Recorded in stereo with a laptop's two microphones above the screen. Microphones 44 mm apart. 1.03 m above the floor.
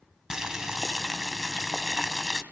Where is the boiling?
10° right (ahead or behind), 2.5 m.